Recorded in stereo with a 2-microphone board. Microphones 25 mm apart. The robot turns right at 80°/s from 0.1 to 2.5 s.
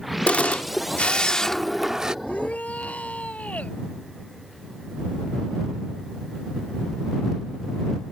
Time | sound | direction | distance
0.3 | a camera shutter | 60° left | ?
2.2 | a shout | 65° left (ahead or behind) | ?